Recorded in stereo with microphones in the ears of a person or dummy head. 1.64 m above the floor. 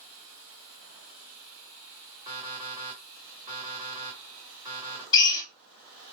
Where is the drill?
20° left (ahead or behind), 1.5 m.